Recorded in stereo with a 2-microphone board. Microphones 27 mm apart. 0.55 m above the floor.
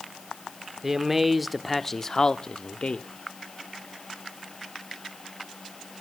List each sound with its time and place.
0.8 s a man speaking: 15° right (ahead or behind), 1.2 m; by 3.1 s 50° left (ahead or behind), 0.9 m